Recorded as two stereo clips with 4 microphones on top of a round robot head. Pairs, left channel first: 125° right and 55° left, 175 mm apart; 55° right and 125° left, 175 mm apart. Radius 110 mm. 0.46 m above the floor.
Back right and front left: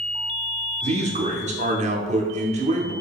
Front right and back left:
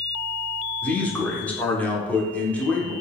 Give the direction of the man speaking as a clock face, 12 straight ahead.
11 o'clock.